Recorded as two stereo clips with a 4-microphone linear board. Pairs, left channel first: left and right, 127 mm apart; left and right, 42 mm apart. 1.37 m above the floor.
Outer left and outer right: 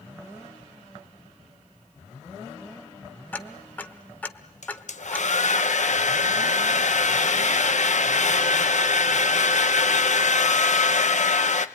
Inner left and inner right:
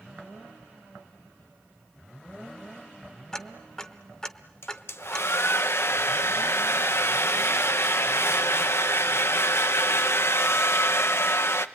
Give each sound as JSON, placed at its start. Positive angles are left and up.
{"t": 3.3, "sound": "ticking", "side_deg": 10, "distance_m": 1.1}
{"t": 4.6, "sound": "a hair dryer", "side_deg": 70, "distance_m": 1.1}